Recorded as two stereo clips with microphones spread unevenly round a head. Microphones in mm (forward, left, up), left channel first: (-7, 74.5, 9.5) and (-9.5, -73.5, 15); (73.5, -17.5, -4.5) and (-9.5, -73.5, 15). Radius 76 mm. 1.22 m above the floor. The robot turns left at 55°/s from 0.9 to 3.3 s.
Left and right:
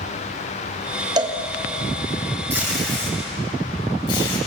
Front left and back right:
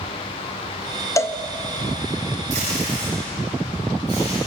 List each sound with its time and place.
1.2 s a cowbell: 25° right, 1.3 m; by 1.4 s 35° right, 1.3 m
2.5 s tape being pulled: 165° right, 7.5 m; by 4.4 s 150° left, 7.5 m